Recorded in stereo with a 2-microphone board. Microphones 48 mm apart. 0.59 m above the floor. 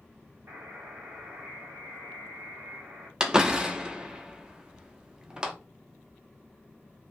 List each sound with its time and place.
0.5 s a buzzer: 80° right, 1.4 m
3.2 s a door slam: 20° right (ahead or behind), 0.5 m